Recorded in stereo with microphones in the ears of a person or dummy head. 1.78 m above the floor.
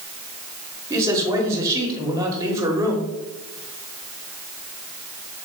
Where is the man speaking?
20° right (ahead or behind), 1.2 m.